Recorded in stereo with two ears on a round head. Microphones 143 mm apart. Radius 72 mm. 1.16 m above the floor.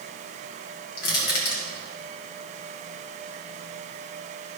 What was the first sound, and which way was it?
Crushing, 65° left (ahead or behind).